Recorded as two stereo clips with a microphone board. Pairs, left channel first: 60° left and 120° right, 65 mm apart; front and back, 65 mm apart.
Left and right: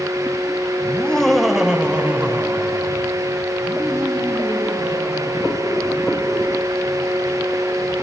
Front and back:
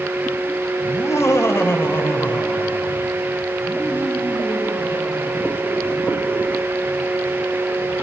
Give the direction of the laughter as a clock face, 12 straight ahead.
12 o'clock.